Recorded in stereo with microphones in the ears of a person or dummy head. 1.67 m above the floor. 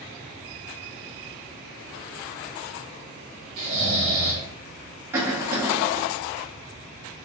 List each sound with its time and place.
3.6 s snoring: 30° right (ahead or behind), 1.1 m
5.1 s a cough: 15° right (ahead or behind), 1.3 m